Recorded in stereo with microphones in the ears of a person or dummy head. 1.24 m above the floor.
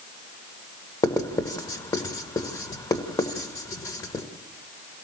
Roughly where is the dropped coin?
No dropped coin in this recording.